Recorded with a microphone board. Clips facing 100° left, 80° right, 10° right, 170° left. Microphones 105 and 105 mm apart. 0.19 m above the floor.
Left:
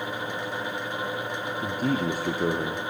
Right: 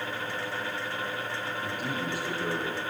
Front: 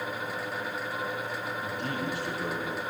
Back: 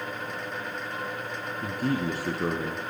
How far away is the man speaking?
About 3.5 m.